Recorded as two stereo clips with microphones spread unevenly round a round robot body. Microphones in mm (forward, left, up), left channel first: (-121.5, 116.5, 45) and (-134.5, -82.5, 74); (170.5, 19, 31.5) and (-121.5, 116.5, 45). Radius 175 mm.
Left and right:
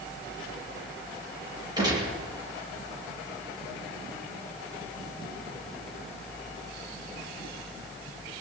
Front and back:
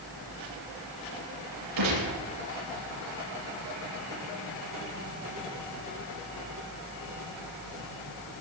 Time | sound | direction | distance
1.8 | a gunshot | 165° right | 9 m